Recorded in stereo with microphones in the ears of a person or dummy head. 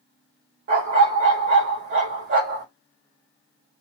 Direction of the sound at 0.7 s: 50° right (ahead or behind).